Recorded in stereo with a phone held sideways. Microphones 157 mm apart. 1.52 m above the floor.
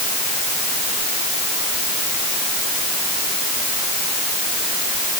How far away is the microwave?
I don't hear a microwave.